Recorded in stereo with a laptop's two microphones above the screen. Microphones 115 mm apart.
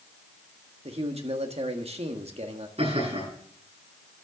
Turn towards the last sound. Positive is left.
turn(degrees=-65)  # may be behind; listen again after turning